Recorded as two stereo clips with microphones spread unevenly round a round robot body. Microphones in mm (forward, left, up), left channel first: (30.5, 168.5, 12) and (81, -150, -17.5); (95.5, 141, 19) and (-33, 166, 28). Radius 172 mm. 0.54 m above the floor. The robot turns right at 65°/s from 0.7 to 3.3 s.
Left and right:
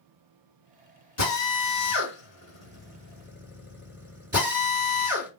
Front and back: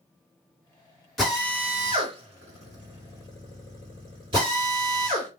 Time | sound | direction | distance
1.2 | a drill | 75° left | 1.7 m